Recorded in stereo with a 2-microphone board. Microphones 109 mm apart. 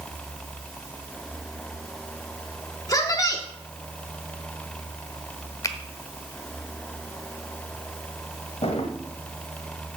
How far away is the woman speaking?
About 1.0 m.